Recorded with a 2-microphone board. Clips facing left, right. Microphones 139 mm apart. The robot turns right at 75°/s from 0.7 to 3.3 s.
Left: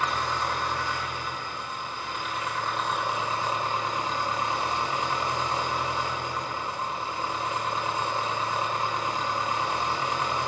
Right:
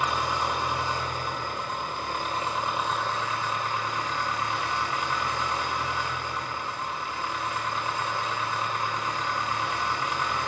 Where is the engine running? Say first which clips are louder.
Right 1 dB; 165° right, 1.1 m; by 10.5 s 30° left, 1.1 m.